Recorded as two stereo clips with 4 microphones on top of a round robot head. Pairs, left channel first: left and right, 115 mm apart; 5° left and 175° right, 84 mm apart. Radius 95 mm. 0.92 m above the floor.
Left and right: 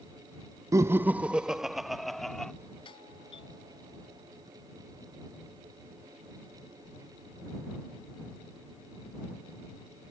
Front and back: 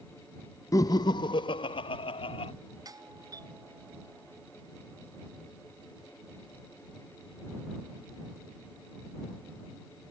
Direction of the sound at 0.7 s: 35° right.